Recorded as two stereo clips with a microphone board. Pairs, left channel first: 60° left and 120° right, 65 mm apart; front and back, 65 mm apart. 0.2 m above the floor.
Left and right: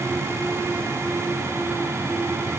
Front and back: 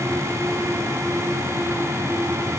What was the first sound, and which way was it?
Only background noise.